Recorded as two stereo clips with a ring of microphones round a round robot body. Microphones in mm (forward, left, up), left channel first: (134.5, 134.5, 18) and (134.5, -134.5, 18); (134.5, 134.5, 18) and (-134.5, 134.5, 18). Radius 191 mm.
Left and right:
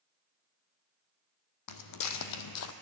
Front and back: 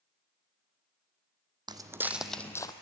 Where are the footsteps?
105° left, 1.1 m; by 2.7 s 75° left, 0.9 m.